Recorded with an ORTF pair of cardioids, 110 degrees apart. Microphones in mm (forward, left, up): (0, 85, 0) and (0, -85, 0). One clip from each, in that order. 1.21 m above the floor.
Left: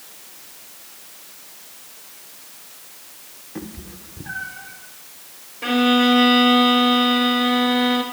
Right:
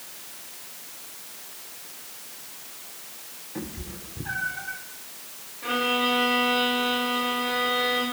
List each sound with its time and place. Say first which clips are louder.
3.5 s a cat meowing: left 1 dB; 20° left, 1.7 m; by 4.8 s 20° right, 1.8 m
5.6 s a violin: left 6 dB; 70° left, 2 m